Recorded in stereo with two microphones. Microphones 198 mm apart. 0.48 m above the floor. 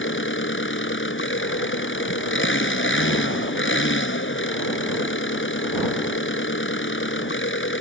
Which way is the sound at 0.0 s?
80° left.